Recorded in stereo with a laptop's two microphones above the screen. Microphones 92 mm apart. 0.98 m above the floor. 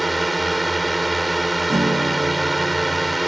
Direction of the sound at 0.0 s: Centre (ahead or behind).